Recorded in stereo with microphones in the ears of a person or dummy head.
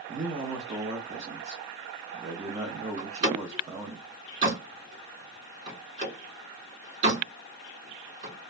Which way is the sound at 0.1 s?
30° right (ahead or behind).